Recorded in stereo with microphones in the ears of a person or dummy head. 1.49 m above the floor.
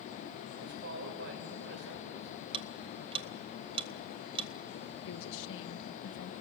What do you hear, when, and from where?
0.5 s a man speaking: 55° right (ahead or behind), 5.5 m; by 2.3 s 70° right (ahead or behind), 5.5 m
2.5 s ticking: 30° right (ahead or behind), 1.5 m
5.1 s a woman speaking: 70° left (ahead or behind), 1.9 m